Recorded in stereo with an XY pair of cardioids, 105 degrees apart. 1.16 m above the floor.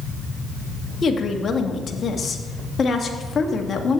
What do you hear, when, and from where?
1.0 s a woman speaking: 40° left, 1.8 m